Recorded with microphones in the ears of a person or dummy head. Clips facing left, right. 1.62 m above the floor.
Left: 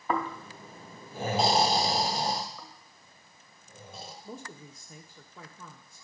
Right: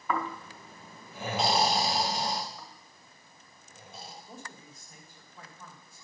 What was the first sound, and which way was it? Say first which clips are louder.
Snoring: left 2 dB; 25° left (ahead or behind).